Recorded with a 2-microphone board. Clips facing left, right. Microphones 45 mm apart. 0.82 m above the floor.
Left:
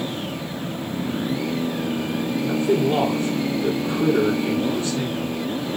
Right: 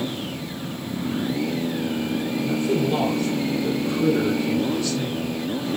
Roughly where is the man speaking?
Left.